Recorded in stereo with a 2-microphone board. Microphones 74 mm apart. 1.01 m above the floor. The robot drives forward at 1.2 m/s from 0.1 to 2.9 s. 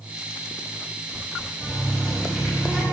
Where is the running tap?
5° left (ahead or behind), 3 m.